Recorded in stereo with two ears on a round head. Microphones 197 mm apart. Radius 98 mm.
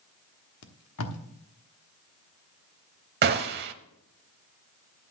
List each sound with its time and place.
0.6 s tape being pulled: 70° left (ahead or behind), 1.2 m
3.2 s a gunshot: 45° right (ahead or behind), 0.7 m